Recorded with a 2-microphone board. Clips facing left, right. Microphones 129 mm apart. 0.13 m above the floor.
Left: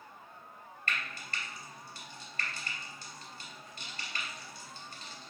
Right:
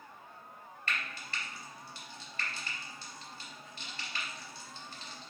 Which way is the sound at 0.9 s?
45° left (ahead or behind).